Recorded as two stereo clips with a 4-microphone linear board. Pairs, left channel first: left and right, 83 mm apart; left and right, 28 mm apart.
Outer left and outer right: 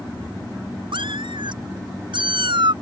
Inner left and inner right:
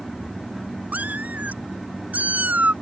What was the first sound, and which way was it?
A cat meowing, 75° right (ahead or behind).